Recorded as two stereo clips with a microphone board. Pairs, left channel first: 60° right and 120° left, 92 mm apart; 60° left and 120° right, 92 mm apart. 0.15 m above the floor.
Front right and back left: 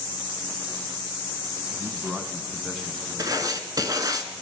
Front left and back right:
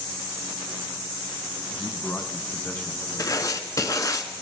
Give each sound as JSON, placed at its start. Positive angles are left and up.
{"t": 1.7, "sound": "a man speaking", "azimuth_deg": 105, "distance_m": 1.0}
{"t": 3.2, "sound": "writing", "azimuth_deg": 95, "distance_m": 0.7}